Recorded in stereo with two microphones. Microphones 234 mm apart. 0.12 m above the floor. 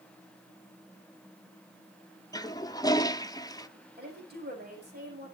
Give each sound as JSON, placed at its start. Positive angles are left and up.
{"t": 2.3, "sound": "a toilet flushing", "side_deg": 15, "distance_m": 0.7}
{"t": 4.0, "sound": "a woman speaking", "side_deg": -45, "distance_m": 5.5}